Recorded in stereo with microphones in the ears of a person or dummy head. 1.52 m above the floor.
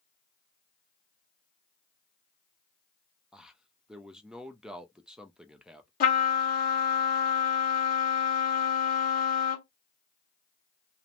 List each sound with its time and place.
3.3 s a man speaking: 5° right (ahead or behind), 0.5 m
6.0 s a trumpet: 45° left (ahead or behind), 1.0 m